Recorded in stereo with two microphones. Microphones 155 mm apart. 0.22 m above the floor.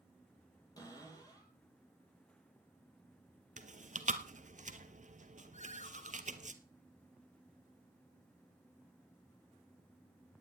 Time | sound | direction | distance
0.8 | a cupboard door | 25° left (ahead or behind) | 5 m
3.6 | chewing | 55° right (ahead or behind) | 1.1 m
5.5 | a ringtone | 50° left (ahead or behind) | 1.7 m